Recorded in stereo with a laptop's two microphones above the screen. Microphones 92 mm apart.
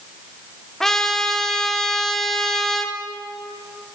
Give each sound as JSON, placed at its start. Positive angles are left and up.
{"t": 0.8, "sound": "a trumpet", "side_deg": 5, "distance_m": 0.6}